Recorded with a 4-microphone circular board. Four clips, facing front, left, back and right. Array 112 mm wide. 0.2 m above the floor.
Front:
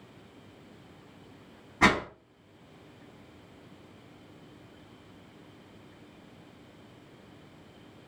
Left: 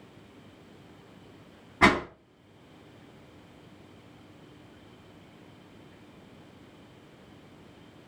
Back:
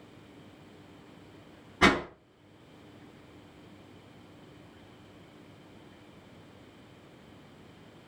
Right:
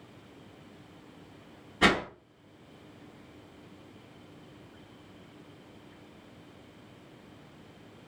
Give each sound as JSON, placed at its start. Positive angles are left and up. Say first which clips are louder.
{"t": 1.8, "sound": "a whoosh", "louder": "left 3 dB, even", "azimuth_deg": 70, "distance_m": 1.2}